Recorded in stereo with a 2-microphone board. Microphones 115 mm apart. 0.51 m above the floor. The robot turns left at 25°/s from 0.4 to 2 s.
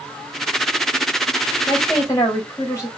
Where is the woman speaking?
20° left (ahead or behind), 2.5 m; by 2.9 s 25° left (ahead or behind), 2.5 m.